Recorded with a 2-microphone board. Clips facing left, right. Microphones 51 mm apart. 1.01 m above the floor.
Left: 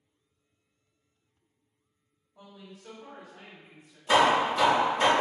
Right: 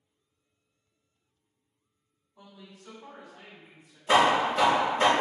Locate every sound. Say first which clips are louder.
2.4 s a woman speaking: left 2 dB; 55° left (ahead or behind), 1.3 m; by 4.0 s 20° left (ahead or behind), 1.1 m
4.1 s hammering: even; 15° right (ahead or behind), 0.9 m